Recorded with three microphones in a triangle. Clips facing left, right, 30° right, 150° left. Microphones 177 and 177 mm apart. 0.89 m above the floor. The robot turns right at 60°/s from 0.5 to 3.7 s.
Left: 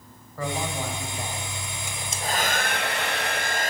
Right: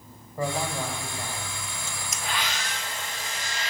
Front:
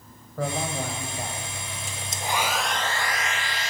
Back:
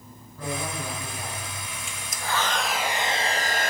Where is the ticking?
I don't hear ticking.